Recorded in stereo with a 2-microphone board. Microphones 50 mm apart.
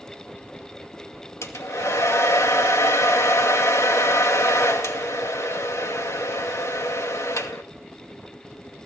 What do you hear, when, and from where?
1.4 s a hair dryer: 80° left, 2.5 m